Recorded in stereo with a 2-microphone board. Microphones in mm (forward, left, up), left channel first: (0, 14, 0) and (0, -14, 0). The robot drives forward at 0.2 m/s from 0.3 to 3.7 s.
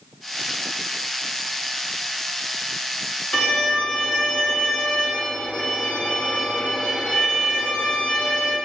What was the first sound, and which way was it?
A violin, 55° left (ahead or behind).